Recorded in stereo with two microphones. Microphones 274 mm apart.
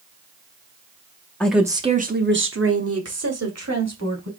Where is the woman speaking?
5° left (ahead or behind), 0.6 m; by 4.3 s 70° right (ahead or behind), 1.8 m.